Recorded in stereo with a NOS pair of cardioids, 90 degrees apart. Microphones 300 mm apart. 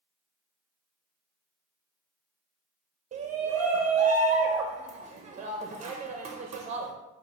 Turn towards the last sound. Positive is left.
turn(degrees=-25)